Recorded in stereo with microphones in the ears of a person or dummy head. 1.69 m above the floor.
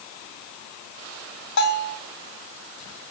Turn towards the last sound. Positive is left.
turn(degrees=75)  # may be behind; listen again after turning